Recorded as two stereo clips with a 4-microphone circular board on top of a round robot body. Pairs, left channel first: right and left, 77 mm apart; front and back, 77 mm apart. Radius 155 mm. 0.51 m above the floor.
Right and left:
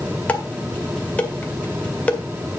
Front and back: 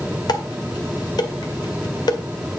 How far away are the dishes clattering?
About 1.9 m.